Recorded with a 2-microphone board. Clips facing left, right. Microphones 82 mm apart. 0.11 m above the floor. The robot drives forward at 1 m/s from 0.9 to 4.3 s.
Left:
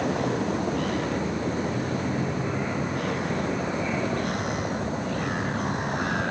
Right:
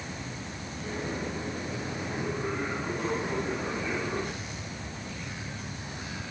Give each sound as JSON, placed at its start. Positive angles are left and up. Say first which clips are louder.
{"t": 0.0, "sound": "a vehicle", "louder": "left 14 dB", "side_deg": 65}